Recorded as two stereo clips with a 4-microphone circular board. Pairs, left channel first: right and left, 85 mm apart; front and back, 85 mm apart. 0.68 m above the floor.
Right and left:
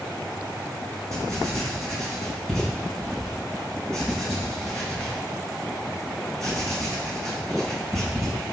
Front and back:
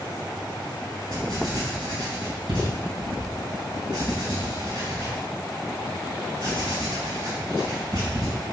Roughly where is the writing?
Behind.